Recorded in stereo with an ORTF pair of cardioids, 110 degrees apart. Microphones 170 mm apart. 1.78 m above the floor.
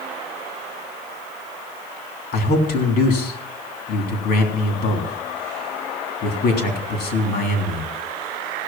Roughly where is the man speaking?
Ahead left.